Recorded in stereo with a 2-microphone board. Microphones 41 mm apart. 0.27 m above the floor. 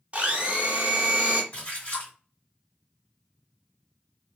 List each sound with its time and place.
0.1 s a blender: 35° right (ahead or behind), 0.8 m
1.5 s a splash: 30° left (ahead or behind), 1.7 m